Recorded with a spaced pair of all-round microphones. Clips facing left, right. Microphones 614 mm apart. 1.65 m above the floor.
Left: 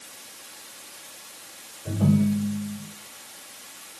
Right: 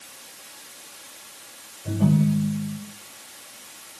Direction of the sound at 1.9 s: 25° right (ahead or behind).